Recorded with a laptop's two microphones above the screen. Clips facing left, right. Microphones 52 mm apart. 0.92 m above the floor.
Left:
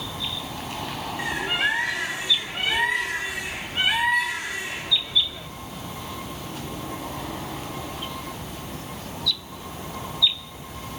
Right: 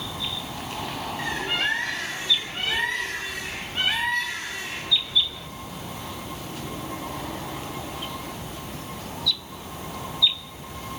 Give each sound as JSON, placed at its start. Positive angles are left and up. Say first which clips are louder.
{"t": 1.2, "sound": "a bird", "louder": "left 2 dB", "side_deg": 10, "distance_m": 0.7}